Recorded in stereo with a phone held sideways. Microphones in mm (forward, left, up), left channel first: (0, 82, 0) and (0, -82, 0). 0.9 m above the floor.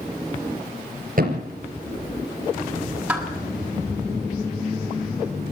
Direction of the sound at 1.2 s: 60° right (ahead or behind).